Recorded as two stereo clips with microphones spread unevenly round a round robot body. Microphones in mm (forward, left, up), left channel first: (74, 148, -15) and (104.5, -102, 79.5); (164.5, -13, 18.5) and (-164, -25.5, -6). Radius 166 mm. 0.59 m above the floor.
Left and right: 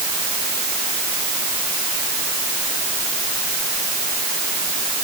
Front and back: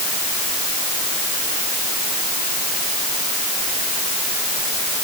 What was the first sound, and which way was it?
Only background noise.